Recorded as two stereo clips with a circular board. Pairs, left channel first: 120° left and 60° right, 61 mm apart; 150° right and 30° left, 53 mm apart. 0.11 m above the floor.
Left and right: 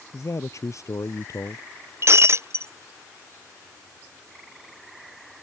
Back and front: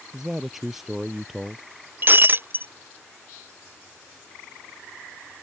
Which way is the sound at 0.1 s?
115° left.